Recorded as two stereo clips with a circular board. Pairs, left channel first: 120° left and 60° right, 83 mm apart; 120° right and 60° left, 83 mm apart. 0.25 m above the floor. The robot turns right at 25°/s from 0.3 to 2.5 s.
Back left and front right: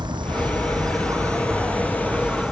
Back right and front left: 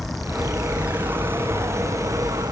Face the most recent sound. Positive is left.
turn(degrees=25)